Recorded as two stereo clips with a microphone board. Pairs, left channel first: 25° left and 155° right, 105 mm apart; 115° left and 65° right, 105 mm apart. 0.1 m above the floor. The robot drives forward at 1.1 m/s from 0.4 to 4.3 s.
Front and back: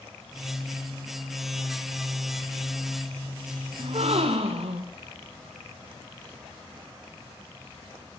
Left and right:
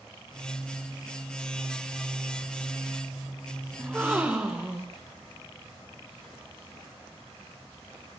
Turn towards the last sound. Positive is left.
turn(degrees=-145)